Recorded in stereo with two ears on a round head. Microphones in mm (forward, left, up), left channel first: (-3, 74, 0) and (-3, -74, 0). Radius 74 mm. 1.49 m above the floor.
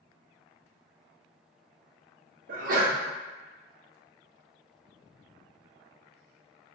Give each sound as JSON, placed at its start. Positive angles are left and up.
{"t": 2.5, "sound": "a sneeze", "side_deg": -50, "distance_m": 0.5}